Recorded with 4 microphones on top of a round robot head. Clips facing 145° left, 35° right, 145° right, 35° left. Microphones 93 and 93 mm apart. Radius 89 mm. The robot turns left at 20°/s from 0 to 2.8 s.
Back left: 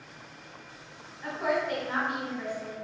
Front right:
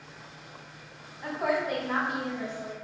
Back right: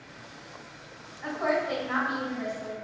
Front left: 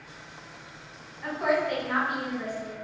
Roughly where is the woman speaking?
Ahead right.